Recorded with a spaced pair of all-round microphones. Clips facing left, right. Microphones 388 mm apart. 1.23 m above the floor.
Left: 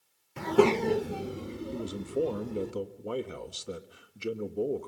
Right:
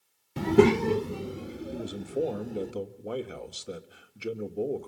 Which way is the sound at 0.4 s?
55° right (ahead or behind).